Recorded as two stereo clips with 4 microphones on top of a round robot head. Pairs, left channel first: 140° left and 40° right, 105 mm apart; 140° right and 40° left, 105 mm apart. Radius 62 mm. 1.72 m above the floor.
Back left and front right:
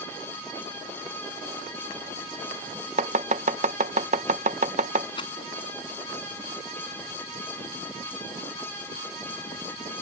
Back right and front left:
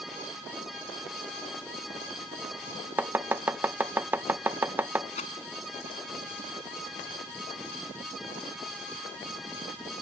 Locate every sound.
3.0 s chopping: 30° right
5.2 s a rattle: 170° right